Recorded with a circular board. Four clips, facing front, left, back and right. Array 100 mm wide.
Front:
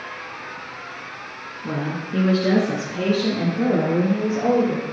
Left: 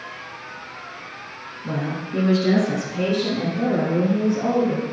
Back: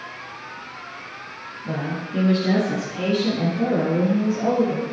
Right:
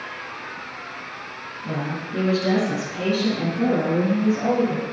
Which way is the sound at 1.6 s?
15° left.